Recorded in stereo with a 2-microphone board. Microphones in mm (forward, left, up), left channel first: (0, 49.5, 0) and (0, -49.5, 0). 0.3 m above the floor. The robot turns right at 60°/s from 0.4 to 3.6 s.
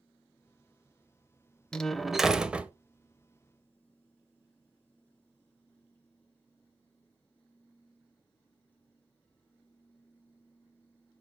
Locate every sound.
1.7 s a door slam: 10° left (ahead or behind), 0.7 m; by 2.7 s 15° right (ahead or behind), 0.7 m